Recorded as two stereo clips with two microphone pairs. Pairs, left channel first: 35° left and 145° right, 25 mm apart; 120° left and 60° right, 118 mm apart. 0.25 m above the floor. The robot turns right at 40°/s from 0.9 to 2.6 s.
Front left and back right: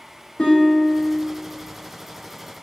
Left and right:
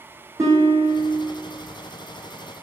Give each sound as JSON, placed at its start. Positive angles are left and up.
{"t": 0.4, "sound": "a guitar", "azimuth_deg": 5, "distance_m": 3.0}